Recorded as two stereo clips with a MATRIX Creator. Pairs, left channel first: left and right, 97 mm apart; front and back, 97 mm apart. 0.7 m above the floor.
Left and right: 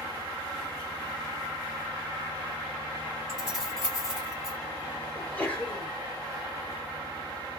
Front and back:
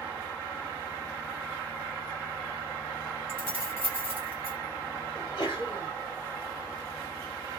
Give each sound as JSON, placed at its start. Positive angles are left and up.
{"t": 3.3, "sound": "keys jangling", "azimuth_deg": -5, "distance_m": 2.0}
{"t": 5.1, "sound": "a sneeze", "azimuth_deg": 20, "distance_m": 1.9}